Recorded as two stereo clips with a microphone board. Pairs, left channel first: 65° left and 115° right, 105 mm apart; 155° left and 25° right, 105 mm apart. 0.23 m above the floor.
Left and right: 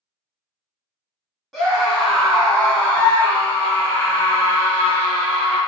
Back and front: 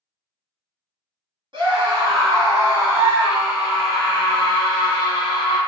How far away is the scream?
About 1.5 m.